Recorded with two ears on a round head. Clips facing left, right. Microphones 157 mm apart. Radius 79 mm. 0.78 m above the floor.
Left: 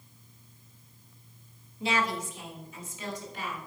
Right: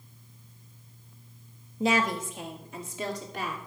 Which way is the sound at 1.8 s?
35° right (ahead or behind).